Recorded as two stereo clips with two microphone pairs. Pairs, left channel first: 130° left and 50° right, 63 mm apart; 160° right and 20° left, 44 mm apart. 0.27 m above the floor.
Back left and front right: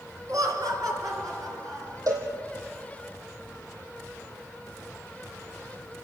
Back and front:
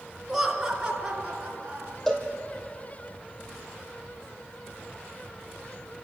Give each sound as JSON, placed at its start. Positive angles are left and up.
{"t": 0.3, "sound": "laughter", "azimuth_deg": -65, "distance_m": 3.0}
{"t": 2.1, "sound": "a cowbell", "azimuth_deg": -80, "distance_m": 3.0}